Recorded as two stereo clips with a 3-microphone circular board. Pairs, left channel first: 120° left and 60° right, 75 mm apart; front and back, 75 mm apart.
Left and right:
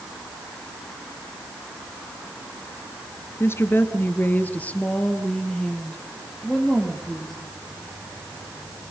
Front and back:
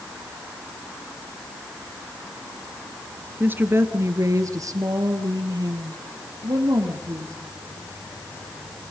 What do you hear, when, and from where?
3.4 s a woman speaking: 140° left, 1.5 m; by 7.3 s 155° right, 3.5 m